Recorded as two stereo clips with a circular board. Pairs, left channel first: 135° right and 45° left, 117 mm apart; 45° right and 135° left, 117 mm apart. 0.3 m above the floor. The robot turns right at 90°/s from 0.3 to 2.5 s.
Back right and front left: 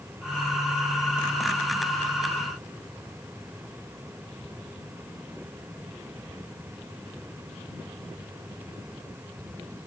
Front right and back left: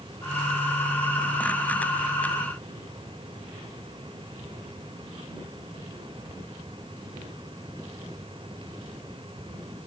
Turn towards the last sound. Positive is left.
No sound to turn to.